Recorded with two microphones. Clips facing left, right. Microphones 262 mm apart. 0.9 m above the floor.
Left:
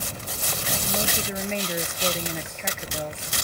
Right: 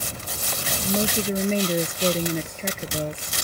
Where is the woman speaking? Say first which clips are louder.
Right 8 dB; 40° right (ahead or behind).